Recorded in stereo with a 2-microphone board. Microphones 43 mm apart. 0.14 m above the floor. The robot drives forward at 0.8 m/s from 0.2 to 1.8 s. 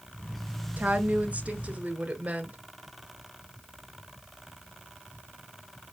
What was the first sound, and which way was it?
A woman speaking, 40° right (ahead or behind).